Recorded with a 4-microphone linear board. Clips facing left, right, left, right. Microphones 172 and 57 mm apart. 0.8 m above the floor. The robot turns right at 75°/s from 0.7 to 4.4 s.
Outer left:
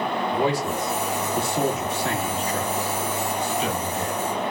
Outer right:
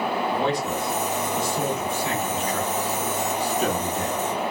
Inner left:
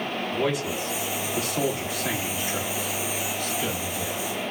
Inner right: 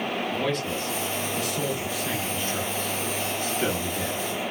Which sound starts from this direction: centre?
A man speaking, at 0.3 s.